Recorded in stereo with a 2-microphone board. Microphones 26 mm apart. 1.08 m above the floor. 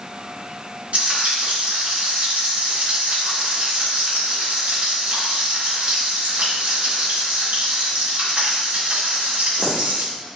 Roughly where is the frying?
Right.